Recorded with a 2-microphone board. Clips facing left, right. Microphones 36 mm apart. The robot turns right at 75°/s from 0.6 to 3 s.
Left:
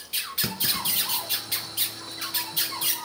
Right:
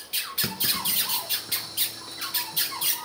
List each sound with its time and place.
0.4 s a clunk: 5° right (ahead or behind), 1.1 m; by 1.6 s 70° right (ahead or behind), 1.1 m